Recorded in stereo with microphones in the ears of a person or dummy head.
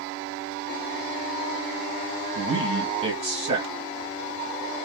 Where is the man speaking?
30° right (ahead or behind), 1.9 m.